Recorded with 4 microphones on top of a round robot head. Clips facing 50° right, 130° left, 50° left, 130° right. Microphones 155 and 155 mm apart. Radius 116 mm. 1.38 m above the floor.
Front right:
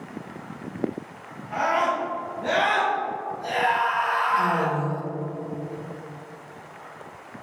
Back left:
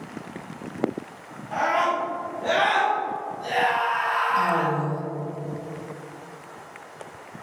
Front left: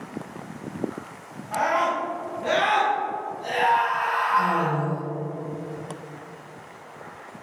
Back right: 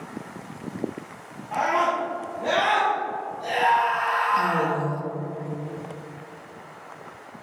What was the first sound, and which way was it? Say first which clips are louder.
A scream: even, even; 165° left.